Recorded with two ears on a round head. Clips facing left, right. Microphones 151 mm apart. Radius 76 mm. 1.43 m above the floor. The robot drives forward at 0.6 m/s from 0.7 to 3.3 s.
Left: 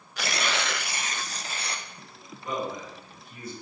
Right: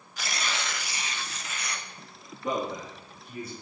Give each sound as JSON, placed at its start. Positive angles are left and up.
{"t": 0.2, "sound": "tearing paper", "side_deg": 50, "distance_m": 0.5}
{"t": 2.4, "sound": "a man speaking", "side_deg": -65, "distance_m": 3.0}